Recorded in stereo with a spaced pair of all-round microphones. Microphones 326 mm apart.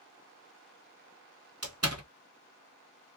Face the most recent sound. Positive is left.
turn(degrees=-45)  # may be behind; listen again after turning